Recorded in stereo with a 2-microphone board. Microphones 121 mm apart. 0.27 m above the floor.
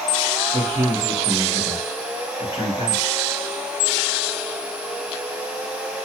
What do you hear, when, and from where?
0.5 s a man speaking: 35° right (ahead or behind), 1.2 m